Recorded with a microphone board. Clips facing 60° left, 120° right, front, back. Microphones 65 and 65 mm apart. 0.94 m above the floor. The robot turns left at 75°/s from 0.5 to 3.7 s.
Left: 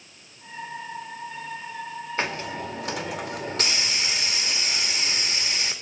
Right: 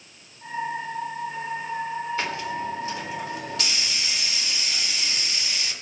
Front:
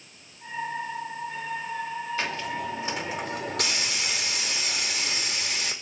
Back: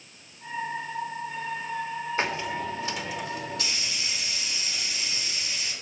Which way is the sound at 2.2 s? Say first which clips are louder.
Right 1 dB, back 4 dB; 120° left.